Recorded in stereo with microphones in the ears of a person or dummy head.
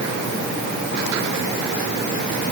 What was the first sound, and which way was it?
Only background noise.